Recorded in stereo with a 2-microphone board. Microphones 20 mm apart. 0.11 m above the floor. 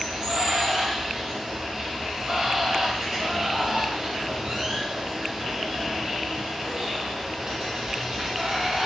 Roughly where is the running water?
Right.